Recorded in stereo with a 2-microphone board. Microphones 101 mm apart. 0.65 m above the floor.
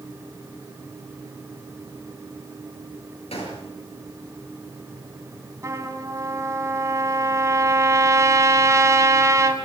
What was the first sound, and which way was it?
A gunshot, 90° left.